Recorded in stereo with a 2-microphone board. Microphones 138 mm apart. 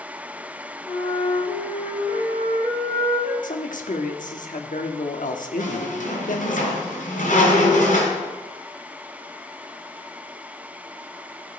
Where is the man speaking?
70° left (ahead or behind), 1.2 m.